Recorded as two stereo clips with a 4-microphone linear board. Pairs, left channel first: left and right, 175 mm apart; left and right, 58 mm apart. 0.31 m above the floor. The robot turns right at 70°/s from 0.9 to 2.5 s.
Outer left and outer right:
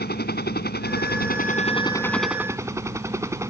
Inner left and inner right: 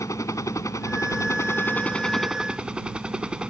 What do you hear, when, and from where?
0.0 s a helicopter: 85° left; by 3.5 s 165° right